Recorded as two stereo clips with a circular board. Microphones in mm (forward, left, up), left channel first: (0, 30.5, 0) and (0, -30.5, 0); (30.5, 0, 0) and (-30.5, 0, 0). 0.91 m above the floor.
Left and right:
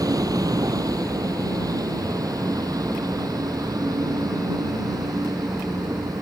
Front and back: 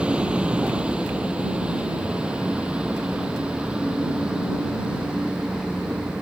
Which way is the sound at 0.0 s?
110° right.